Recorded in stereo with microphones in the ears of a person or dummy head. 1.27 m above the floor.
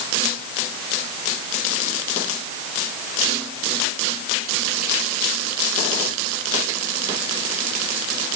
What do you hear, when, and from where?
Only background noise.